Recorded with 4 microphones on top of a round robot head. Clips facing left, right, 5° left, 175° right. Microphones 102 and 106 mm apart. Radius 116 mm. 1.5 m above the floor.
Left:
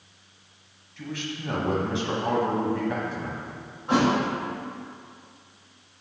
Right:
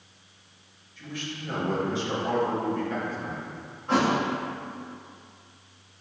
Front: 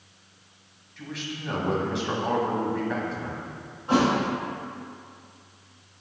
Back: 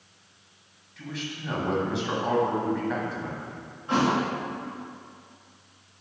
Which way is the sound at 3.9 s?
30° left.